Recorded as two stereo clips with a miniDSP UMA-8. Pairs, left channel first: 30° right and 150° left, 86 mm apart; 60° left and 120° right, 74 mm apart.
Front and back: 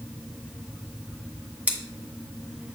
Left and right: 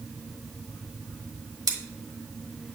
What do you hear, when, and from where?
1.7 s scissors: 140° right, 2.5 m